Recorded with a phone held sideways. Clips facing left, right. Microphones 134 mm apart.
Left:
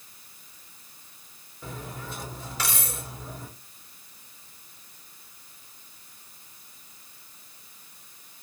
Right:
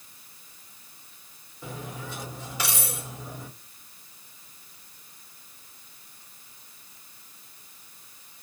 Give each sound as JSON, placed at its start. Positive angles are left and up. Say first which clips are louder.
{"t": 1.6, "sound": "cutlery clinking", "louder": "right 1 dB", "side_deg": -15, "distance_m": 2.0}